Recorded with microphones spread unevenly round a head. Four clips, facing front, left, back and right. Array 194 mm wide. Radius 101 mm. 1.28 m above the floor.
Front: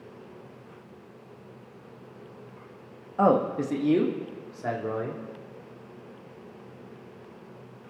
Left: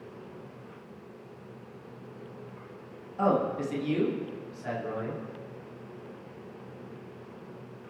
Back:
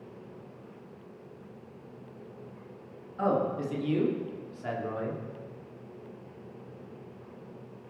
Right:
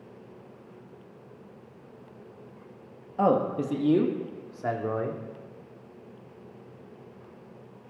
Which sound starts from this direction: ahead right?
A man speaking, at 3.2 s.